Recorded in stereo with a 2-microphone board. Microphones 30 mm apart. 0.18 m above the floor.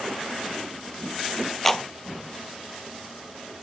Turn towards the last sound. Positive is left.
turn(degrees=5)  # may be behind; listen again after turning